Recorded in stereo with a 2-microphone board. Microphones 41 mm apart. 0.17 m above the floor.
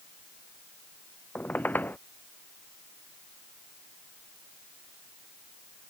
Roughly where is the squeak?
Left.